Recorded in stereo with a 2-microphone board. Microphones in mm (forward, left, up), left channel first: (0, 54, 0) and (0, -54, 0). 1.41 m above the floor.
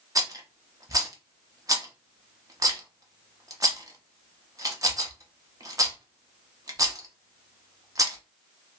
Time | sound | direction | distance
0.1 | a rattle | 30° right (ahead or behind) | 0.7 m